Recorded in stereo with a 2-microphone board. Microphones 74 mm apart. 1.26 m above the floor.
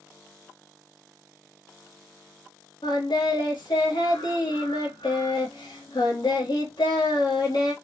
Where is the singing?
85° left, 1.5 m.